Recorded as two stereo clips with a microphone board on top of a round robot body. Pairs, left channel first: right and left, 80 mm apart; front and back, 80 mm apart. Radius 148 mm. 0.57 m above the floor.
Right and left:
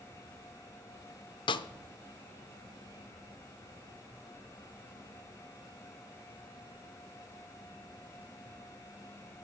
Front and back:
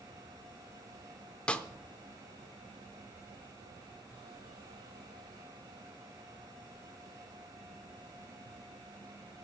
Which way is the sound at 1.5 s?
80° right.